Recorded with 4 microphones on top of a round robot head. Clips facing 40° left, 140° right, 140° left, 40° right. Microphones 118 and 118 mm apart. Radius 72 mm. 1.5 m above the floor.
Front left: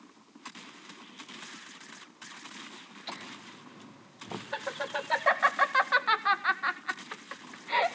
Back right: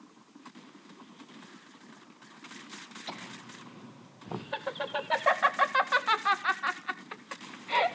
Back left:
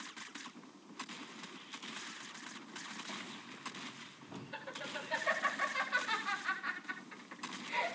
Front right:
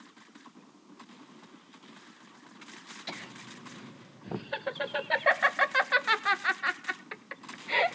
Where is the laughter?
55° right, 2.0 m.